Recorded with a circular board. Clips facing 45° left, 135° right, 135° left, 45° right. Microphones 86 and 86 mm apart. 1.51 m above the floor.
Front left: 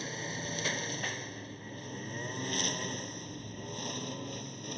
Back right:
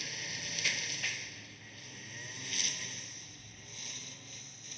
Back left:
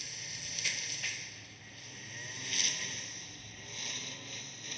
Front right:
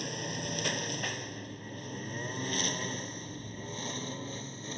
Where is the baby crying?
No baby crying in this recording.